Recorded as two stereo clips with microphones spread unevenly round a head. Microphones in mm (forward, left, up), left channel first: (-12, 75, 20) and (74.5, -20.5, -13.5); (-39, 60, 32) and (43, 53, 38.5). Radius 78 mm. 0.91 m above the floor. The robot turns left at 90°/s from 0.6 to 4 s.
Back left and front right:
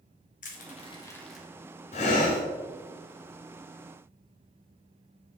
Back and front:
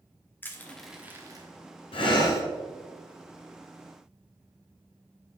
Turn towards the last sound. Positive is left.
turn(degrees=-20)